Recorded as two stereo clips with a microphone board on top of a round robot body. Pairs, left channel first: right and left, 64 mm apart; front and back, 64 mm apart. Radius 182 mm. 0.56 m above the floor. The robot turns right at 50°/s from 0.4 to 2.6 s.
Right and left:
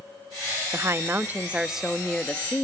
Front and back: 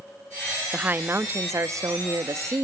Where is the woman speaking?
120° left, 1.0 m; by 2.6 s 150° right, 1.0 m.